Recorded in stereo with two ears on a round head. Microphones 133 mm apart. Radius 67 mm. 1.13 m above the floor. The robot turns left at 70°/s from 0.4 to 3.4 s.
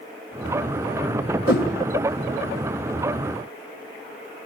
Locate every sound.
1.5 s a whoosh: 65° left (ahead or behind), 1.9 m; by 1.7 s 70° left (ahead or behind), 1.9 m